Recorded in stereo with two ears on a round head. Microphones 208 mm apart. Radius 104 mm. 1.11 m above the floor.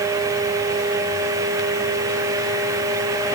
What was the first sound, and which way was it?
Only background noise.